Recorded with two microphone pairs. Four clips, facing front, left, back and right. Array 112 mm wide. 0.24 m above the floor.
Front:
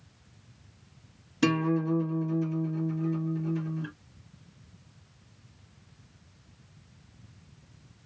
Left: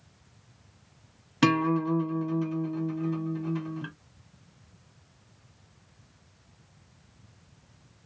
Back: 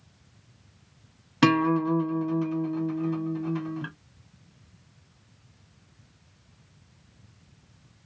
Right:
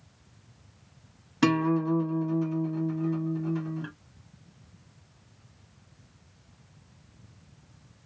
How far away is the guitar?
About 1.4 m.